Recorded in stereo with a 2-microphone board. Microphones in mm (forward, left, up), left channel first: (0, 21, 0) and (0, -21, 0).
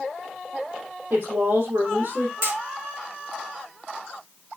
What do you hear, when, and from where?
1.1 s a woman speaking: 75° right (ahead or behind), 6 m
2.4 s hammering: 75° right (ahead or behind), 7 m